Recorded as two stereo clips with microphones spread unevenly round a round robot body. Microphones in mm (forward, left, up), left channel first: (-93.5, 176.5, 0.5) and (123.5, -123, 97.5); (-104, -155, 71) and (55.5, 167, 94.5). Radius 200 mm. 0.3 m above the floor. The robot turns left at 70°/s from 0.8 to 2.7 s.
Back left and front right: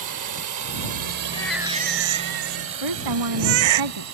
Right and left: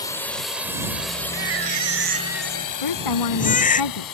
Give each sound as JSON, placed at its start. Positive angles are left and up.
{"t": 0.0, "sound": "a drone", "azimuth_deg": -50}
{"t": 1.3, "sound": "a baby crying", "azimuth_deg": 50}
{"t": 2.8, "sound": "a woman speaking", "azimuth_deg": -90}